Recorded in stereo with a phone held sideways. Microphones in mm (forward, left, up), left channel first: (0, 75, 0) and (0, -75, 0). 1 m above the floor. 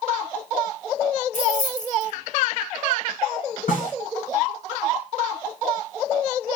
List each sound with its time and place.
1.3 s keys jangling: 55° left (ahead or behind), 2.5 m
3.7 s a snare drum: 65° left (ahead or behind), 6.5 m